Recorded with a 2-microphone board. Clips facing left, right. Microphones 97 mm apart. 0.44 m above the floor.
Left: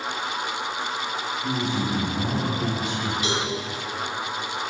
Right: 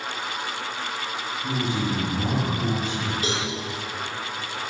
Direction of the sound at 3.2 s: 35° right (ahead or behind).